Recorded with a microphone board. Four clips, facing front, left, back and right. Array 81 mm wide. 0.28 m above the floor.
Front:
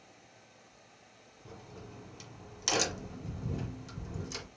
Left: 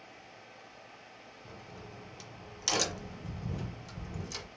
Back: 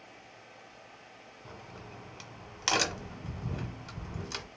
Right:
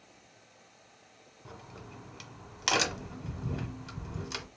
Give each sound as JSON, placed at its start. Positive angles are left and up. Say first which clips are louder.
{"t": 1.4, "sound": "a crack", "louder": "right 2 dB, back 1 dB", "azimuth_deg": -135, "distance_m": 1.0}